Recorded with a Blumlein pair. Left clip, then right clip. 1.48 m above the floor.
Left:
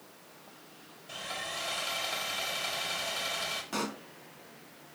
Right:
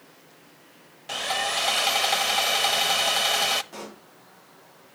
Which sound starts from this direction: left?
A pop, at 3.7 s.